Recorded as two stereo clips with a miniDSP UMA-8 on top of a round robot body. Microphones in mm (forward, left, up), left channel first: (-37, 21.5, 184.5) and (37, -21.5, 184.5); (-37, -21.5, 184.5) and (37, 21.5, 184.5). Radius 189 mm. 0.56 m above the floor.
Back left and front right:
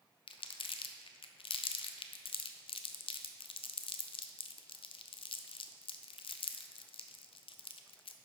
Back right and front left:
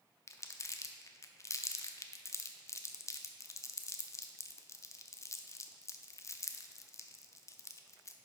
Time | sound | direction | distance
0.3 | crumpling | 155° left | 0.5 m